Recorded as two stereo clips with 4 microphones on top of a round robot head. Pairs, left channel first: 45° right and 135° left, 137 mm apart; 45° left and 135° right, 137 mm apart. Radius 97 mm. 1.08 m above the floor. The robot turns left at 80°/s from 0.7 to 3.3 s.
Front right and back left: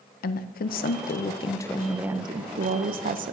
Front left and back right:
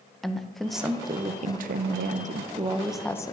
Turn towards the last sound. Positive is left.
turn(degrees=110)